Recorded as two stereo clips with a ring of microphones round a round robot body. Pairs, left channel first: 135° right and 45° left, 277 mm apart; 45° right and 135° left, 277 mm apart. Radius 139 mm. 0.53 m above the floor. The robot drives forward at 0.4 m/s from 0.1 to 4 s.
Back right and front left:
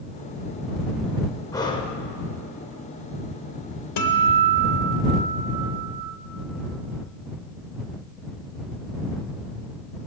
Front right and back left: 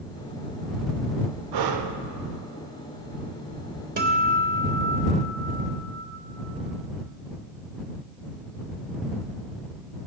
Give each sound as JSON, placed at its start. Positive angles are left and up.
{"t": 1.5, "sound": "breathing", "azimuth_deg": 145, "distance_m": 0.5}
{"t": 4.0, "sound": "a guitar", "azimuth_deg": -165, "distance_m": 0.9}